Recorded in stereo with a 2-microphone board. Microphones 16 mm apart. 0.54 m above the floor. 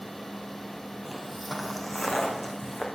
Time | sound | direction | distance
1.1 | footsteps | 5° right (ahead or behind) | 0.8 m